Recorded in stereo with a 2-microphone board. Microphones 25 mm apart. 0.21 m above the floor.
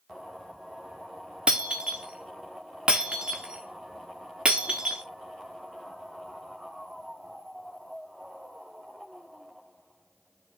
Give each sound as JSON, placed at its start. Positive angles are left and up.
{"t": 1.5, "sound": "breaking glass", "side_deg": -35, "distance_m": 1.3}